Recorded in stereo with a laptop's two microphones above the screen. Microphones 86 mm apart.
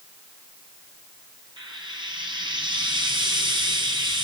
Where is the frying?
60° right (ahead or behind), 4.5 m.